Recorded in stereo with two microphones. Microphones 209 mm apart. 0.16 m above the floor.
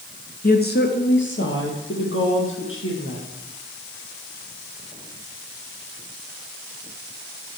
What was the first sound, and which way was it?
A woman speaking, 45° left (ahead or behind).